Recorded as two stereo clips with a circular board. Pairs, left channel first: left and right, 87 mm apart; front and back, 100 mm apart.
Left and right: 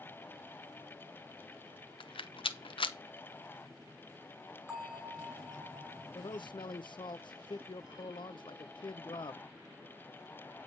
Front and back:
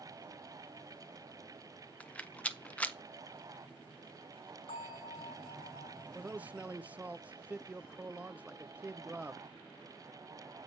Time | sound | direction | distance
2.0 | a rattle | 75° left | 0.5 m
4.7 | a bell | 15° right | 6.5 m
6.2 | a man speaking | 105° left | 0.5 m